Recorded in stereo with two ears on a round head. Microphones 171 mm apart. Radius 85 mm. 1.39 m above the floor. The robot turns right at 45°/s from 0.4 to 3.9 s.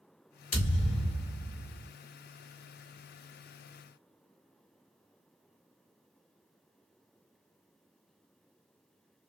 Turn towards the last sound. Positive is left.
turn(degrees=-70)